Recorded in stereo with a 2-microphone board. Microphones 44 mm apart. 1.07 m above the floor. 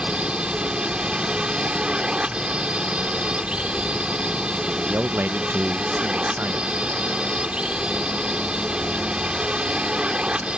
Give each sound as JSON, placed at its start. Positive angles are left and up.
{"t": 0.0, "sound": "a drone", "side_deg": -20}
{"t": 4.9, "sound": "a man speaking", "side_deg": -55}